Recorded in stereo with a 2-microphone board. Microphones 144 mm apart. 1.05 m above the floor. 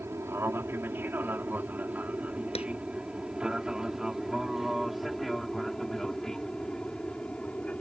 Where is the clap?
45° left (ahead or behind).